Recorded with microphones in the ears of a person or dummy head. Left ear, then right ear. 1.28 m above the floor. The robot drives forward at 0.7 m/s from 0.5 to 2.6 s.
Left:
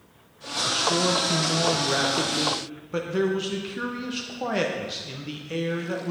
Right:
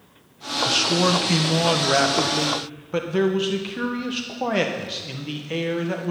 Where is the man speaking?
25° right (ahead or behind), 0.7 m; by 6.1 s 20° right (ahead or behind), 1.0 m.